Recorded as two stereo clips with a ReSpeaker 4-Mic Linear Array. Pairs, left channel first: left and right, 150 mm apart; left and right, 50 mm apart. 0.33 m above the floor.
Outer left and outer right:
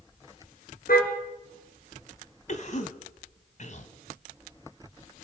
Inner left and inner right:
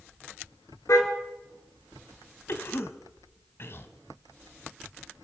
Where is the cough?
55° left (ahead or behind), 1.8 m.